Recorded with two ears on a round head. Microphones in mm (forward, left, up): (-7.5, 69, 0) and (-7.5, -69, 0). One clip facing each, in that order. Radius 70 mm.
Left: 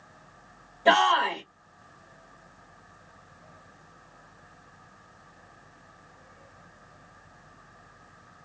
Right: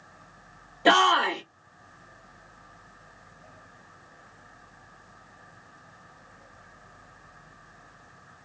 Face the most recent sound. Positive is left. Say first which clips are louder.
# even
turn(degrees=-85)